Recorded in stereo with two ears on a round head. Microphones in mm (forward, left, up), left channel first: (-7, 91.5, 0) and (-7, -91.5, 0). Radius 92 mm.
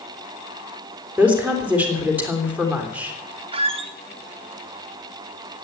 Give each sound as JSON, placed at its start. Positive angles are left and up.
{"t": 1.2, "sound": "a woman speaking", "side_deg": -10, "distance_m": 3.5}
{"t": 3.5, "sound": "a squeak", "side_deg": -30, "distance_m": 1.0}